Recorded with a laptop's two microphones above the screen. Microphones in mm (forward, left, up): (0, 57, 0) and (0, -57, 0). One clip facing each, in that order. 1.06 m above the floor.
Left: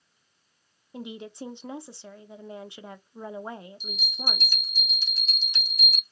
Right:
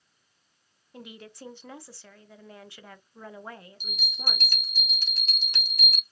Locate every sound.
0.9 s a woman speaking: 20° left (ahead or behind), 0.6 m
3.8 s a bell: 60° right (ahead or behind), 0.9 m